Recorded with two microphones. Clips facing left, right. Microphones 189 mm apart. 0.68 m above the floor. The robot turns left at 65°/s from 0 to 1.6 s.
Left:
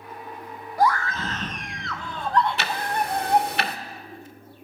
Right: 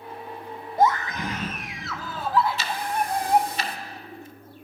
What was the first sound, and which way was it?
A scream, 25° right (ahead or behind).